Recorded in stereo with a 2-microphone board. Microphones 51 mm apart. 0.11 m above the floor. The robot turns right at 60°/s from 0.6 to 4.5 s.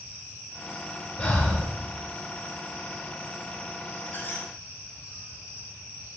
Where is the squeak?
30° left (ahead or behind), 1.6 m; by 4.5 s 45° left (ahead or behind), 1.6 m.